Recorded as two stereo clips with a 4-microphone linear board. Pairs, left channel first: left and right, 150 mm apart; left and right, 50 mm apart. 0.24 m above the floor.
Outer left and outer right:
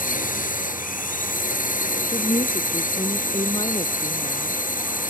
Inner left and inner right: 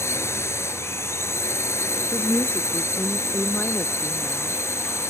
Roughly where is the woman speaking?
Left.